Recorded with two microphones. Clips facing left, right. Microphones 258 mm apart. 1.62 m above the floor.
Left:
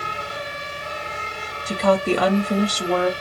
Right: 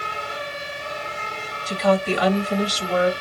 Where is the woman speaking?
55° left (ahead or behind), 1.0 m.